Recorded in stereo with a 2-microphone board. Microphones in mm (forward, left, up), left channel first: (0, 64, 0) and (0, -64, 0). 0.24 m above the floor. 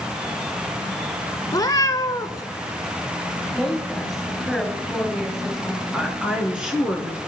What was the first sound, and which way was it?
A cat meowing, 30° left (ahead or behind).